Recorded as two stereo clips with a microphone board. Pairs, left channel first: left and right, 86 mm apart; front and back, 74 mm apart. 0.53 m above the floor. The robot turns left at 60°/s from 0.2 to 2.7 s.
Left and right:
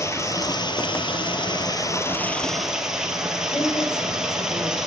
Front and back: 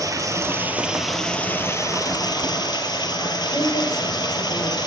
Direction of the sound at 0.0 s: 145° left.